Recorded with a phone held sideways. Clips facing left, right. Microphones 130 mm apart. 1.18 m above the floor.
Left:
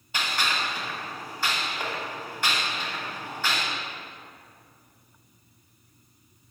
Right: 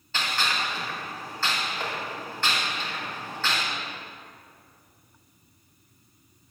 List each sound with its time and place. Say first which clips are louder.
0.1 s a gunshot: even; 15° left (ahead or behind), 2.5 m